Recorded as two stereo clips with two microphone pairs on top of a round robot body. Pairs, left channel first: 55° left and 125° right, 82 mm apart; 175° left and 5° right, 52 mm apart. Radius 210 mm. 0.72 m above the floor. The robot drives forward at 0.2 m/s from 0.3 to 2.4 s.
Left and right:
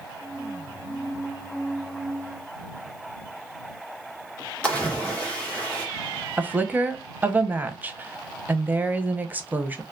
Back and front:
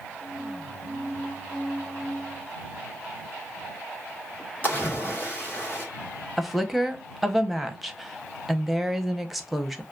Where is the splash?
135° left, 1.4 m.